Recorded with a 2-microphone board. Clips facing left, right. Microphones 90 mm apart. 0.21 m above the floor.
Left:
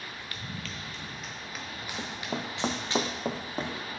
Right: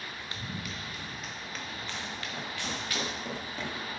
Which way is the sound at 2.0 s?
85° left.